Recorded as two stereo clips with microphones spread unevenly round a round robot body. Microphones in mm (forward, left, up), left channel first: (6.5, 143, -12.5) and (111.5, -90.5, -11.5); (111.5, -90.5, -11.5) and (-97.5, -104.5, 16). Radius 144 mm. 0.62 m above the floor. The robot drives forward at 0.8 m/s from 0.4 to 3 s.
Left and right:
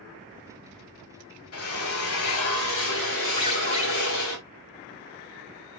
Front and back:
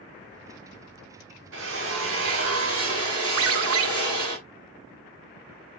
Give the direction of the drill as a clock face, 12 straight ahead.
7 o'clock.